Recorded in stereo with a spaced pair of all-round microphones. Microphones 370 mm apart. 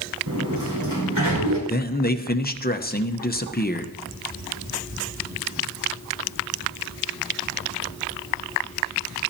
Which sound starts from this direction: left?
A man speaking, at 1.7 s.